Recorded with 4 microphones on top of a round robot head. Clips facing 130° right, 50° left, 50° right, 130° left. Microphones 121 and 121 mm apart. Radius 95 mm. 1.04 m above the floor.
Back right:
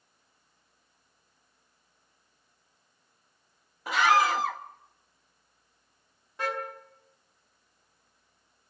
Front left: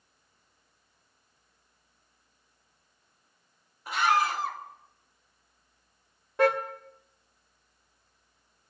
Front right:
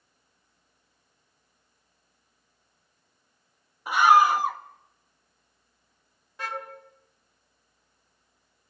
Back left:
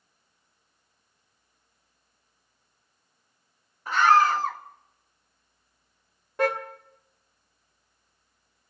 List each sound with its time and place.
3.9 s a scream: 130° right, 1.4 m
6.4 s a car horn: 90° left, 2 m